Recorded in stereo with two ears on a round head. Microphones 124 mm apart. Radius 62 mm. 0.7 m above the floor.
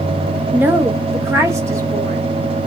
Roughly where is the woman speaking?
Centre.